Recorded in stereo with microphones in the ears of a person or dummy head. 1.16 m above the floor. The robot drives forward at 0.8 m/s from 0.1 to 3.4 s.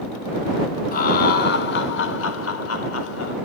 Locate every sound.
0.9 s laughter: 50° left (ahead or behind), 2 m; by 3.4 s 70° left (ahead or behind), 1.7 m